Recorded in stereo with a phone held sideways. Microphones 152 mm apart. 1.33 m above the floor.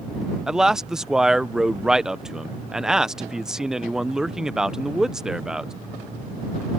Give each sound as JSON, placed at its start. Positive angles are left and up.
{"t": 0.5, "sound": "a man speaking", "side_deg": -5}